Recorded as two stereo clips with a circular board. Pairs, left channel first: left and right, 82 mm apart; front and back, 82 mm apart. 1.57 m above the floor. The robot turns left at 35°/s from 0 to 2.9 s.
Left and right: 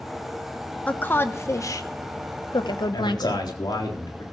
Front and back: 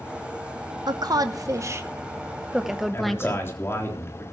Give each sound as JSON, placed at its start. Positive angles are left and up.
{"t": 0.9, "sound": "a woman speaking", "azimuth_deg": 160, "distance_m": 1.0}
{"t": 2.9, "sound": "a man speaking", "azimuth_deg": 60, "distance_m": 3.5}